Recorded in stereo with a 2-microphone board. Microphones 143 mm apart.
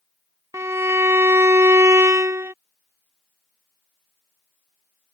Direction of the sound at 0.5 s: 20° right (ahead or behind).